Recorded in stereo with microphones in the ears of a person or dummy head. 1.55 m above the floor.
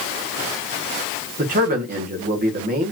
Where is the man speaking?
40° right (ahead or behind), 1.4 m.